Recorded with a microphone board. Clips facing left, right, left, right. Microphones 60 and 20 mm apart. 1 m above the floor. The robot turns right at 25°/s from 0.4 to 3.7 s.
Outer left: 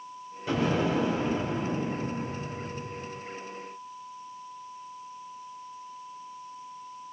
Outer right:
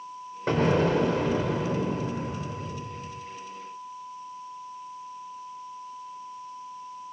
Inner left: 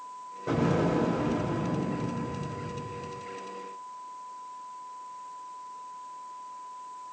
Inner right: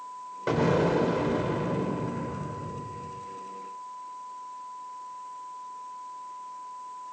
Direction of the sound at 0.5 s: 135° right.